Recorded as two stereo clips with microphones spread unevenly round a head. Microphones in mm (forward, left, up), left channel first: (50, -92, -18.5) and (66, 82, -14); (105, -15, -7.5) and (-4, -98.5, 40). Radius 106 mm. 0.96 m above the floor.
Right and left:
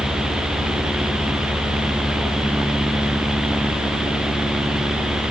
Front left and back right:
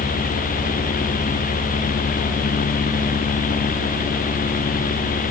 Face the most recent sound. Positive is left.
No sound to turn to.